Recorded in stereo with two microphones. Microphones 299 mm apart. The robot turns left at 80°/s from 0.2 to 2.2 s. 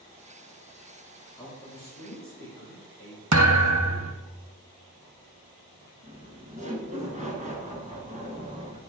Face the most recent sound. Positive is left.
turn(degrees=-25)  # may be behind; listen again after turning